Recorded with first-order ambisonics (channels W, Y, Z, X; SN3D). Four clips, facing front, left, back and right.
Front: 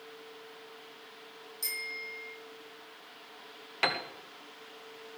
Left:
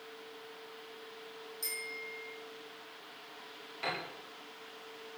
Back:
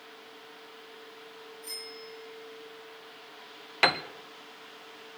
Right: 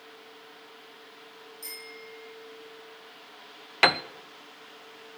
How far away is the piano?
About 0.8 m.